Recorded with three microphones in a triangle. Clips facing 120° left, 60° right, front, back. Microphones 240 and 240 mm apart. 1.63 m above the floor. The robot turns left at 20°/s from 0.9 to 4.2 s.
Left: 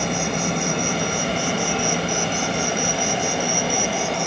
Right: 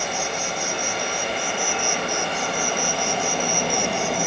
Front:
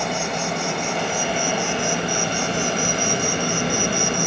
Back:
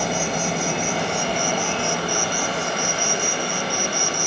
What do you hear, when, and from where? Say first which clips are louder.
0.0 s an insect: left 5 dB, back 1 dB; 95° left; by 4.3 s 25° left